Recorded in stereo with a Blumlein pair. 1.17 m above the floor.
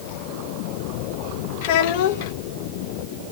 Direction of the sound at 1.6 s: 50° left.